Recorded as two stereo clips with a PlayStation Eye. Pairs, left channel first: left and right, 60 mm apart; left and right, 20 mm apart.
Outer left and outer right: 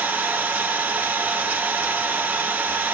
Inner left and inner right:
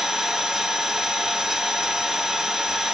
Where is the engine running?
25° right (ahead or behind), 0.8 m.